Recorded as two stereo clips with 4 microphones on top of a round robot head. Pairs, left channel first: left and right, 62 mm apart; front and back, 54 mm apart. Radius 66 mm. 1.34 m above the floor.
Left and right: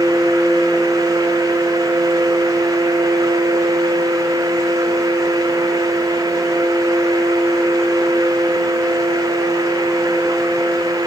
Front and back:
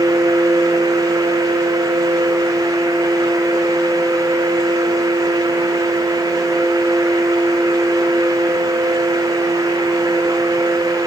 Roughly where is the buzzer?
I don't hear a buzzer.